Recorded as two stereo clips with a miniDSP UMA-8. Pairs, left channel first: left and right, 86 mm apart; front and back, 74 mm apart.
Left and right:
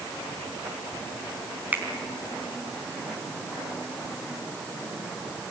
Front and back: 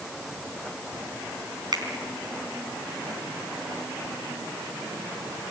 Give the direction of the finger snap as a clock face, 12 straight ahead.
5 o'clock.